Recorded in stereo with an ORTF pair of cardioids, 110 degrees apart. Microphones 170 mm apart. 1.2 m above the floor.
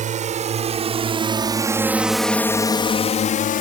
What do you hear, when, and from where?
0.0 s a drone: 50° right; by 3.6 s 65° left